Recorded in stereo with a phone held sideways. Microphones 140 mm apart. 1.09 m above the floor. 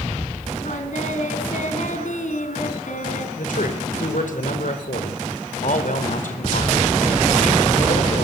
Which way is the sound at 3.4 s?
70° left (ahead or behind).